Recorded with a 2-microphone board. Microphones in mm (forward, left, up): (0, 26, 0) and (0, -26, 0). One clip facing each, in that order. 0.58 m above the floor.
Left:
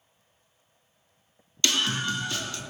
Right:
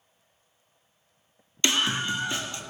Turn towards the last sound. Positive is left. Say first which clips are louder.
# right 1 dB
turn(degrees=-20)  # may be behind; listen again after turning